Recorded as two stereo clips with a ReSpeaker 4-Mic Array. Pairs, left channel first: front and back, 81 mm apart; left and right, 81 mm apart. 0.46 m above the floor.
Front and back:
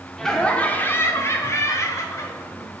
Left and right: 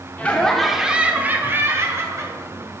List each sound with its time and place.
0.2 s laughter: 75° left, 0.8 m; by 2.8 s 45° right, 1.8 m